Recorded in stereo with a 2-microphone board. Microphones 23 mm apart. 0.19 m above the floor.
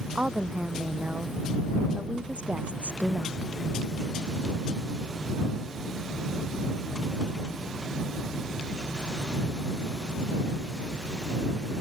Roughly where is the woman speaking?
Right.